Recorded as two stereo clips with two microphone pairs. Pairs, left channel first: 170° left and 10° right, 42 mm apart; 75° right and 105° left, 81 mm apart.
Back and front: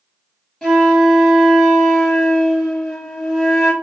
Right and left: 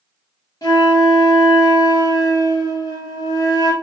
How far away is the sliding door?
I don't hear a sliding door.